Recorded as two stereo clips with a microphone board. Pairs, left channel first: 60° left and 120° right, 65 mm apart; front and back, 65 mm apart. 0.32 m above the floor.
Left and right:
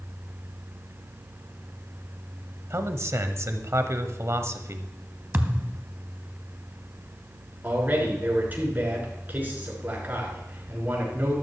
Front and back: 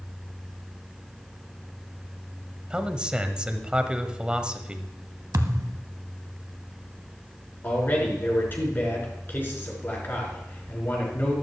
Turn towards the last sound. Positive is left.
turn(degrees=-60)